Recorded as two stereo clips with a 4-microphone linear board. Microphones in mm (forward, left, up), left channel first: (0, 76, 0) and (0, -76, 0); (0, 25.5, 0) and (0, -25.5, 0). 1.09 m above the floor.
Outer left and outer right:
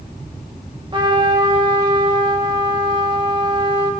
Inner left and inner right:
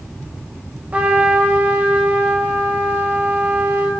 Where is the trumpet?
30° right (ahead or behind), 2 m.